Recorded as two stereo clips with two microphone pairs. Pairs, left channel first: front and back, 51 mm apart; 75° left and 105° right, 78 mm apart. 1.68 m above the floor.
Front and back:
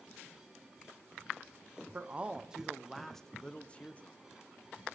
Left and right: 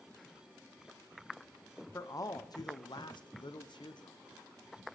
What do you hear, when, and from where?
1.9 s a man speaking: 125° left, 1.0 m; by 4.2 s 60° left, 1.3 m